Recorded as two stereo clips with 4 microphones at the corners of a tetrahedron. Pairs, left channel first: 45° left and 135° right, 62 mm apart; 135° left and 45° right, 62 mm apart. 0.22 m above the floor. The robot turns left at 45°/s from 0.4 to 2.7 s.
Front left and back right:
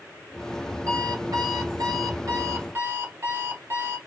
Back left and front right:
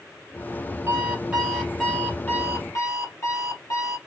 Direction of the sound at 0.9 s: 105° right.